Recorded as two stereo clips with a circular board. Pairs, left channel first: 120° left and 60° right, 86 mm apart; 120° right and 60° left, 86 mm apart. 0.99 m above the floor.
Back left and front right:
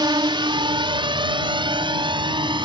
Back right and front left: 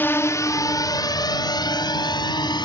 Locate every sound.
0.0 s a drone: 55° right; by 2.6 s 85° right